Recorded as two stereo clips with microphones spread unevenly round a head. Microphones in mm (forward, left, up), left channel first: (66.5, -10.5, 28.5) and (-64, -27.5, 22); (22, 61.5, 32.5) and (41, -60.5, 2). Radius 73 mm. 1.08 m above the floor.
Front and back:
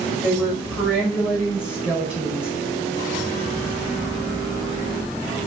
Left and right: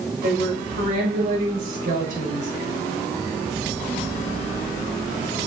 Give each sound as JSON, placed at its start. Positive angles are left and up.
{"t": 0.2, "sound": "a woman speaking", "azimuth_deg": -90, "distance_m": 6.0}